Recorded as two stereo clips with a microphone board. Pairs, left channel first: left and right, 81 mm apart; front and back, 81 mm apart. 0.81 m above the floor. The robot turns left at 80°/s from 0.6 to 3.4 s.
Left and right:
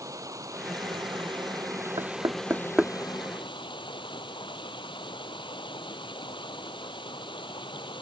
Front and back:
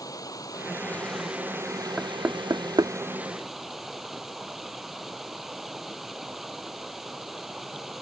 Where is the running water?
45° right; by 8.0 s 95° left.